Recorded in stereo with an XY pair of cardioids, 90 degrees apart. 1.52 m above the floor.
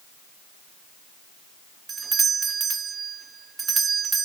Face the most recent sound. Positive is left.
turn(degrees=-40)